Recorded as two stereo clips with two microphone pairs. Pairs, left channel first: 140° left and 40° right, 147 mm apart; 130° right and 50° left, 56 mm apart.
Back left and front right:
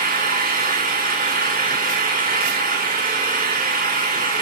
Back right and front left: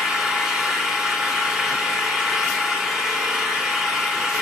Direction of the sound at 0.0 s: 25° right.